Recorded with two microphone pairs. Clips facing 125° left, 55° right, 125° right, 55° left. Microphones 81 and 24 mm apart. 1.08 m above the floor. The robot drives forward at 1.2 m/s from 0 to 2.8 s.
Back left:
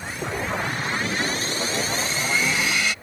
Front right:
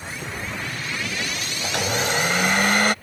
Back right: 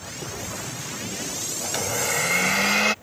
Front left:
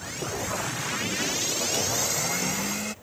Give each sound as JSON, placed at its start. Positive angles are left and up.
{"t": 1.6, "sound": "a blender", "azimuth_deg": -65}